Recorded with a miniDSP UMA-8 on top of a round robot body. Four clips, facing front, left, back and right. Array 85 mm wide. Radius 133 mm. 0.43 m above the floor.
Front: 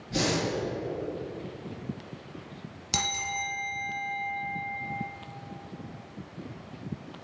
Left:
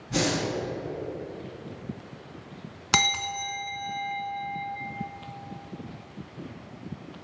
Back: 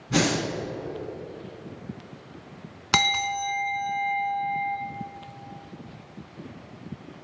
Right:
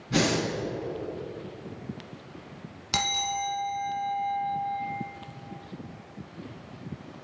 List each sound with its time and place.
0.1 s breathing: 165° right, 3 m
2.9 s a bell: 145° left, 1.0 m